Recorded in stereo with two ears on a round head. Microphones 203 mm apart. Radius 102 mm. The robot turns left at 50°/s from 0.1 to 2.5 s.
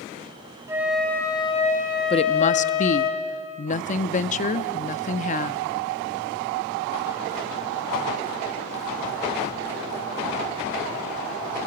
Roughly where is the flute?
Behind.